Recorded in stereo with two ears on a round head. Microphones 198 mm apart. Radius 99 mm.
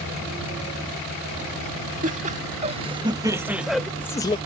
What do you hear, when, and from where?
2.0 s laughter: 40° right (ahead or behind); by 4.4 s 20° left (ahead or behind)